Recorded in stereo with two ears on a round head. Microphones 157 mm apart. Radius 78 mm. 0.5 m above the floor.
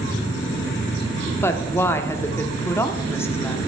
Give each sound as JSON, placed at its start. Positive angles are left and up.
{"t": 1.4, "sound": "a woman speaking", "side_deg": 15, "distance_m": 0.8}